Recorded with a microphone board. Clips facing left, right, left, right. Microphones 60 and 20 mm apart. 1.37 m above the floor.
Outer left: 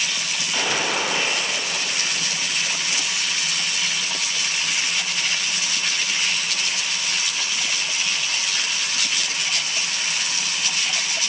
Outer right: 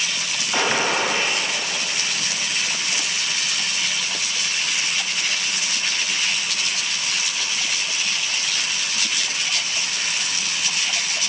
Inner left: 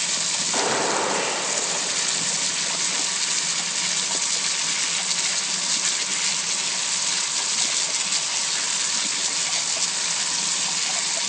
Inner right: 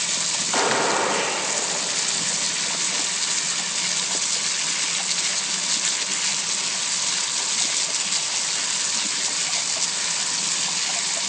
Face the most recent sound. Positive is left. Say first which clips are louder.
# outer right 3 dB, inner right 3 dB
turn(degrees=-35)  # may be behind; listen again after turning